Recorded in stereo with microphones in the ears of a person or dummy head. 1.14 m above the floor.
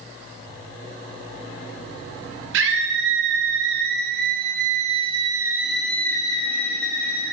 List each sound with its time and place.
2.5 s a scream: 65° right (ahead or behind), 2.5 m; by 7.3 s 55° left (ahead or behind), 1.3 m